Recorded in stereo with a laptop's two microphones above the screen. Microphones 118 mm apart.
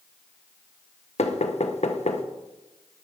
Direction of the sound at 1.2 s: 65° left (ahead or behind).